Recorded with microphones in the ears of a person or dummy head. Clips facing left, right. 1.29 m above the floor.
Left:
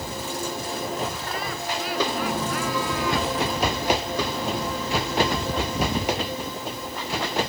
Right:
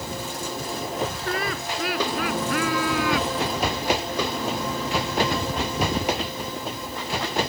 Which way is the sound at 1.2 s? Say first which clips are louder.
Right 2 dB; 55° right (ahead or behind).